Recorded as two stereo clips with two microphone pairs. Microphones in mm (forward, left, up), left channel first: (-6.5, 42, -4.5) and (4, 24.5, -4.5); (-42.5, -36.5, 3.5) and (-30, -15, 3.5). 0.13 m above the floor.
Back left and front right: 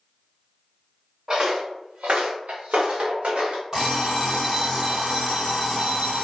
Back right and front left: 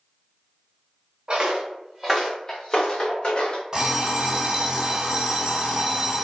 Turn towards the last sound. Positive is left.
turn(degrees=0)